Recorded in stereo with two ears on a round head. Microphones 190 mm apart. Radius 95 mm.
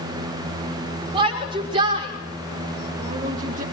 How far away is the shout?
About 5 m.